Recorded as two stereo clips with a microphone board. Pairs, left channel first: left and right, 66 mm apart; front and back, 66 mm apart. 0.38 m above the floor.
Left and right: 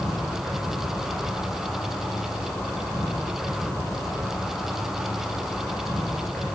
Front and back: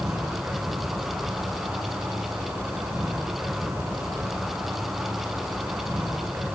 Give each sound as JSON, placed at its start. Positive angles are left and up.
{"t": 0.0, "sound": "an insect", "azimuth_deg": 140, "distance_m": 6.0}